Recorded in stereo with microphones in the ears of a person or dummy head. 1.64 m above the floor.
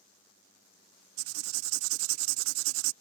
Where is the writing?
90° right.